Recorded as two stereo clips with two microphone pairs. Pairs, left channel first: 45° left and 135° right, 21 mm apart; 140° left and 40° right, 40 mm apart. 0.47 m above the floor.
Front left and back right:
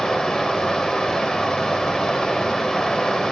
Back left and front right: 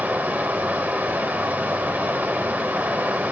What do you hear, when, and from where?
0.0 s running water: 5° right, 0.9 m